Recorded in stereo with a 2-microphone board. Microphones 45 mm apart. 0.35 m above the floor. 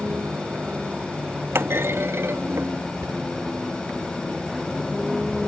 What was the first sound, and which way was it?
A vehicle, 40° right (ahead or behind).